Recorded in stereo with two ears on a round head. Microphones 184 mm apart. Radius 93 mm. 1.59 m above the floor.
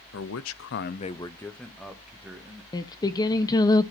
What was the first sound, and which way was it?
A man speaking, 65° left (ahead or behind).